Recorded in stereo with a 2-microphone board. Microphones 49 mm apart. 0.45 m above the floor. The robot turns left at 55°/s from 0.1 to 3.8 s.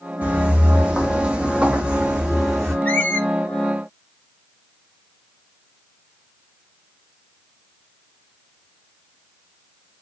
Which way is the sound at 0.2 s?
30° right (ahead or behind).